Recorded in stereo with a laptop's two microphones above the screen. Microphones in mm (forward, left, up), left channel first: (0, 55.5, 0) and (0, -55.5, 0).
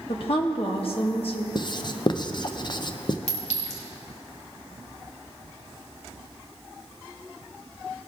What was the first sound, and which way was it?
A woman speaking, 55° left (ahead or behind).